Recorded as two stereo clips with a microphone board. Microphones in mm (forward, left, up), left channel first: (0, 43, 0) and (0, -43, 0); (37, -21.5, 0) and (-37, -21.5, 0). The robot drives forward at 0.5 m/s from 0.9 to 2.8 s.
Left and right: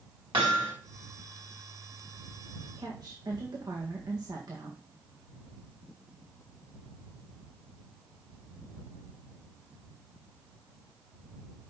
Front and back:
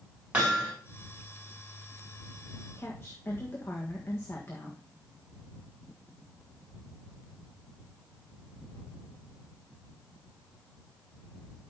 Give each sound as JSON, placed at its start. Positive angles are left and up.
{"t": 0.3, "sound": "hammering", "azimuth_deg": -110, "distance_m": 3.5}
{"t": 2.8, "sound": "a woman speaking", "azimuth_deg": -55, "distance_m": 1.5}